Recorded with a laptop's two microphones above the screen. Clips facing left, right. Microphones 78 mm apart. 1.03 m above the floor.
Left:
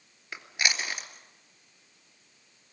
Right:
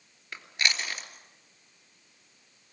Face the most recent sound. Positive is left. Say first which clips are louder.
# even
turn(degrees=10)  # may be behind; listen again after turning